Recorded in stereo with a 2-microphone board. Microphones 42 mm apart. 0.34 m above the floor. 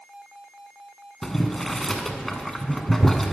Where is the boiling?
5° left (ahead or behind), 0.5 m.